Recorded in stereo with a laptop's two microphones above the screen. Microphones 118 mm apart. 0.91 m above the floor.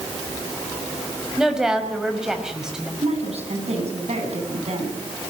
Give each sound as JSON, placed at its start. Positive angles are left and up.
{"t": 1.4, "sound": "a woman speaking", "side_deg": -5, "distance_m": 5.5}
{"t": 3.0, "sound": "a woman speaking", "side_deg": -65, "distance_m": 7.5}